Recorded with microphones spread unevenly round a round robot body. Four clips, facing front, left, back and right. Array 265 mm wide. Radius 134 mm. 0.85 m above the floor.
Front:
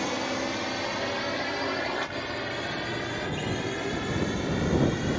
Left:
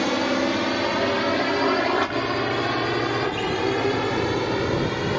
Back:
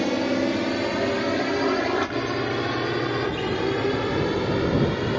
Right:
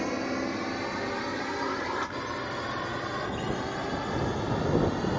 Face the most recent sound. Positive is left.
turn(degrees=135)